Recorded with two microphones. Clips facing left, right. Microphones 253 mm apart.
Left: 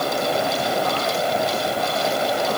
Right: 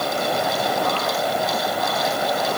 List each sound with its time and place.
Only background noise.